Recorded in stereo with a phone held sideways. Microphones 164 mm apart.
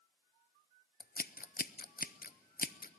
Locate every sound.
1.0 s scissors: 65° left (ahead or behind), 0.5 m